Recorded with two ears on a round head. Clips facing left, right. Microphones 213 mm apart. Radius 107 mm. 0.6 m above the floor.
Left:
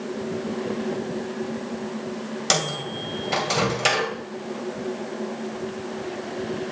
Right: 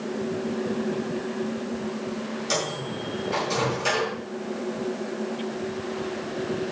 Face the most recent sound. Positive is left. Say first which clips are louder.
# left 1 dB
turn(degrees=80)